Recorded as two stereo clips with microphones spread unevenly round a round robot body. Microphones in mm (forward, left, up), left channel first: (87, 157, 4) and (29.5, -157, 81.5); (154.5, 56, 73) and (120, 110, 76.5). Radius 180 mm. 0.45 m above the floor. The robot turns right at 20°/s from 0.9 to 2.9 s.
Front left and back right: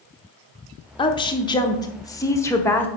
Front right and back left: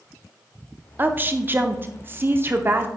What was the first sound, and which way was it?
A woman speaking, 90° left.